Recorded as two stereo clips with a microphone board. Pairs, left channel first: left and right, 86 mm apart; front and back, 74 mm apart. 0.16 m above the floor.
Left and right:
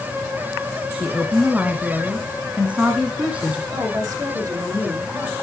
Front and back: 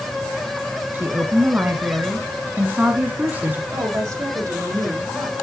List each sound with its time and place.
0.9 s a woman speaking: 145° right, 1.3 m
3.7 s a woman speaking: 140° right, 6 m